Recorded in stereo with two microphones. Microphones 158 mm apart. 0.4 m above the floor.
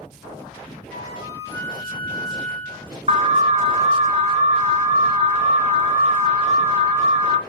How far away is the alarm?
About 0.9 m.